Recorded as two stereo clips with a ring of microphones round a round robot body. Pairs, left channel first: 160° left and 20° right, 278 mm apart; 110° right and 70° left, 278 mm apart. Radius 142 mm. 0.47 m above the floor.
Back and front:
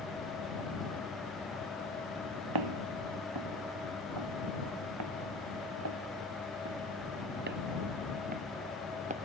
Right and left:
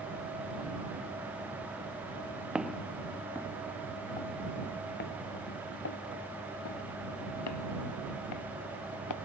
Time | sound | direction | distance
2.5 | footsteps | 20° right | ?